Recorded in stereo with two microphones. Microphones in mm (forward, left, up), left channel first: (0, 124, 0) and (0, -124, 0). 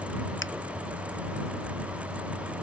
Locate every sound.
0.4 s a finger snap: 50° left (ahead or behind)